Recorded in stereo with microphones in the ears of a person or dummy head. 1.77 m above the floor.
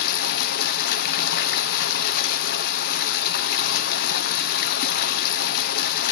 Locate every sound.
0.0 s running water: 60° left (ahead or behind), 0.8 m